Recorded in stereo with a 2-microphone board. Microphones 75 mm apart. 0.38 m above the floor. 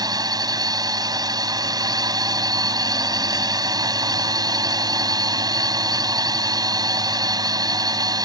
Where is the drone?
65° right (ahead or behind).